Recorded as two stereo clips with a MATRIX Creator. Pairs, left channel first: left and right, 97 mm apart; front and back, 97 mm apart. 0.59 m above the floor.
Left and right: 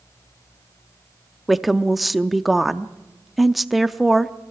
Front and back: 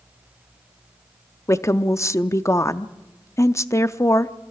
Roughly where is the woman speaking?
Ahead.